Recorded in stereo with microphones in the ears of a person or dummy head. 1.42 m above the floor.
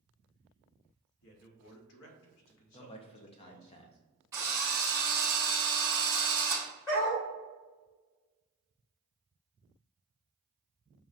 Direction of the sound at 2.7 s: 30° left (ahead or behind).